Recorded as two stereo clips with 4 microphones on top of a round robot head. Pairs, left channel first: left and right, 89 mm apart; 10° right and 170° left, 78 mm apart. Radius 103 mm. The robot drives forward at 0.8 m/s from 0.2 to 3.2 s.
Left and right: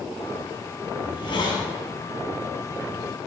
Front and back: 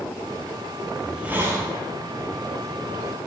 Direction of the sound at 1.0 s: 80° left.